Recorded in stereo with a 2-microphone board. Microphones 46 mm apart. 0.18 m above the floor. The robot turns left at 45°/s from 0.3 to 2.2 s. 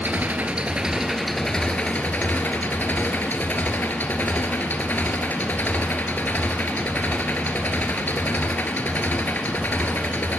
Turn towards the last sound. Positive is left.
turn(degrees=135)